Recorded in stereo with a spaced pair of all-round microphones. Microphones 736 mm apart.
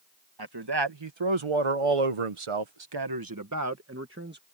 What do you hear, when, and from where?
0.4 s a man speaking: 30° right (ahead or behind); by 4.4 s 15° right (ahead or behind)